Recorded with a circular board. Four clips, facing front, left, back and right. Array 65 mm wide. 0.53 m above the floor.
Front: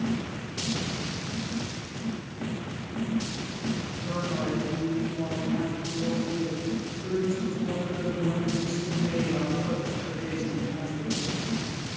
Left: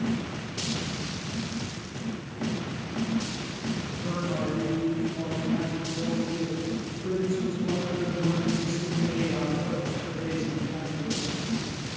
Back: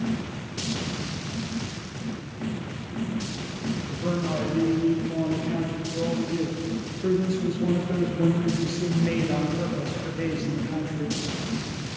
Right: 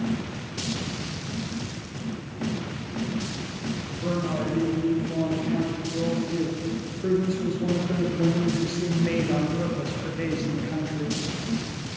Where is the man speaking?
145° right, 9 m; by 11.2 s 120° right, 7.5 m.